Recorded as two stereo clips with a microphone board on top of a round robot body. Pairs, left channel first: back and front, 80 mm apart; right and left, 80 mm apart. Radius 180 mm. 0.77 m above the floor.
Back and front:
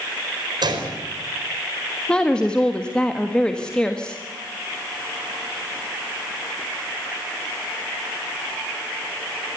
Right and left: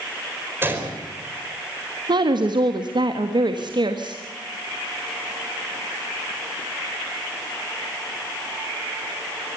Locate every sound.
0.6 s a gunshot: 25° left, 4.5 m
2.1 s a woman speaking: 100° left, 1.8 m